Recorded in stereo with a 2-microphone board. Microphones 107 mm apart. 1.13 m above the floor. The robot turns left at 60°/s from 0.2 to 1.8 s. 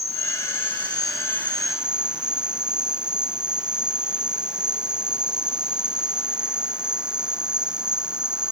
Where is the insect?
85° left; by 8.5 s 10° right.